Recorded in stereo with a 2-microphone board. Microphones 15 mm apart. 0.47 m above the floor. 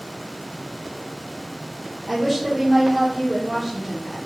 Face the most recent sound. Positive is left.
turn(degrees=0)  # may be behind; listen again after turning